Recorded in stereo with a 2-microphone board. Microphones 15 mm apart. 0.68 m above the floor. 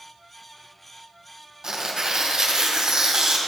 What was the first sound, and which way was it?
Tearing paper, 55° right (ahead or behind).